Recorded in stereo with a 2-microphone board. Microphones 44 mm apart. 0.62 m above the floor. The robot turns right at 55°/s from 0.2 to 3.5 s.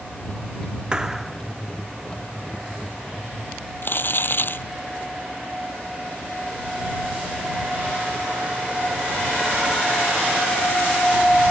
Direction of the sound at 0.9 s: 20° right (ahead or behind).